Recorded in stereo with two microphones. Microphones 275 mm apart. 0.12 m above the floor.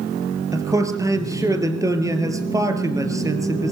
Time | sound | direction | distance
0.5 | a man speaking | 10° right (ahead or behind) | 3 m